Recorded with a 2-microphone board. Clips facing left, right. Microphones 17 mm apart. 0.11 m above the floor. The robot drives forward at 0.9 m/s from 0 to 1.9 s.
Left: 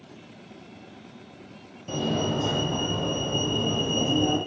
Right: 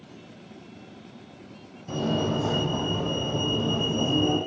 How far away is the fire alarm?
About 7.5 m.